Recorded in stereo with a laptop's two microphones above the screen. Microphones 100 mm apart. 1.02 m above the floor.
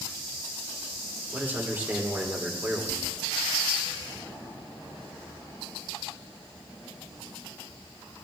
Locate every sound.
1.3 s a man speaking: 20° right (ahead or behind), 3 m